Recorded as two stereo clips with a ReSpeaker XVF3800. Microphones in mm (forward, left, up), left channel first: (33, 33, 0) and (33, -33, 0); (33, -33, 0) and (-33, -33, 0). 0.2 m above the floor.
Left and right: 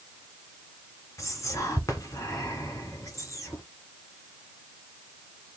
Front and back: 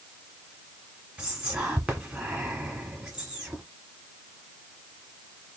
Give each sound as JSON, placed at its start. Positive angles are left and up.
{"t": 1.2, "sound": "whispering", "azimuth_deg": 110, "distance_m": 1.5}